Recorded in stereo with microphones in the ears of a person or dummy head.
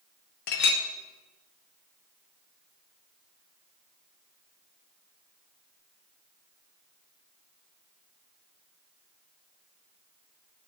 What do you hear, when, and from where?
0.5 s a clink: 40° left (ahead or behind), 0.6 m